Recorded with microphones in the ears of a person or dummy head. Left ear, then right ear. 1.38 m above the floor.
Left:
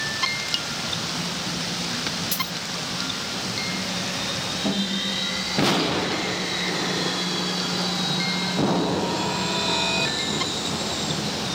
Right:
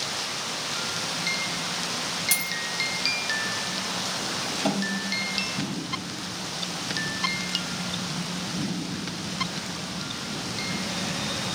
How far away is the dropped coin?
About 2 m.